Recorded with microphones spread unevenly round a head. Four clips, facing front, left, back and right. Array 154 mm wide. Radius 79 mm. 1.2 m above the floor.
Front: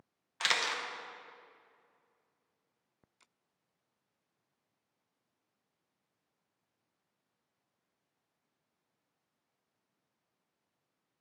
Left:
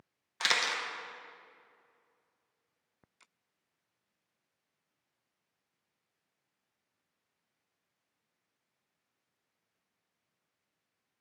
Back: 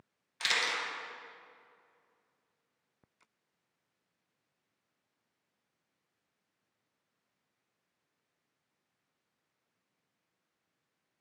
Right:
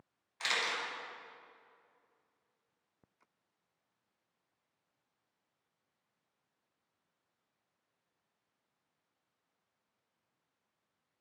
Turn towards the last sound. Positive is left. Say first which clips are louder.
# left 4 dB, even
turn(degrees=80)